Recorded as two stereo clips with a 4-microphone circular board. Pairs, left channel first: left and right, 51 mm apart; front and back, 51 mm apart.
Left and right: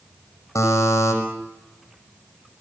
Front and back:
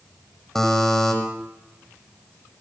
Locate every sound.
0.6 s a buzzer: 80° left, 5 m